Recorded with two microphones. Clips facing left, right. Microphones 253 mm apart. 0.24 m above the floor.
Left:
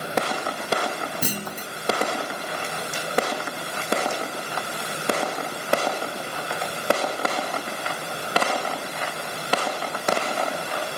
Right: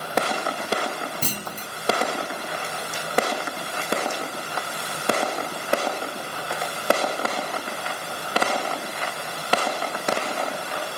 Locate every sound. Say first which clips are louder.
1.2 s a clunk: left 2 dB; 15° left (ahead or behind), 0.8 m